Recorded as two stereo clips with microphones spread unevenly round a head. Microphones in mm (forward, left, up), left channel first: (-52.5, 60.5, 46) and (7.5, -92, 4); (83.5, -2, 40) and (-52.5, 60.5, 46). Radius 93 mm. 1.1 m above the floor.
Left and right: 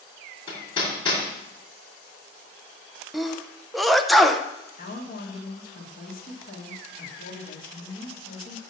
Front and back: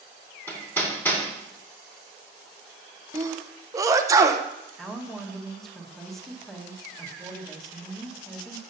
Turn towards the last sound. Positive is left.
turn(degrees=65)